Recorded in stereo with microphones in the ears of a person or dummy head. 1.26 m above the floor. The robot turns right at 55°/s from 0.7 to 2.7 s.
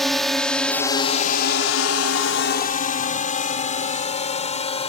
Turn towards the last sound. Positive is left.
turn(degrees=30)  # may be behind; listen again after turning